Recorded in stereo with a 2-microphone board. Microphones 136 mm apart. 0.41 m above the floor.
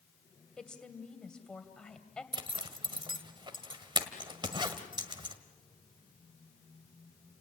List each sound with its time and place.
0.6 s a woman speaking: 5° left (ahead or behind), 2.5 m
2.3 s a zipper: 35° right (ahead or behind), 1.5 m